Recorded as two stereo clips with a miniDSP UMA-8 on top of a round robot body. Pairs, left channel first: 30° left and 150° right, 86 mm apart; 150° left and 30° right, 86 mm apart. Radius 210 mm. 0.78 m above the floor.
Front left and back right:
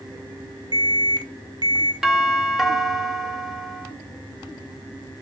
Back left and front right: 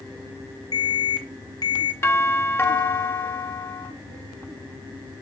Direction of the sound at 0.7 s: 175° right.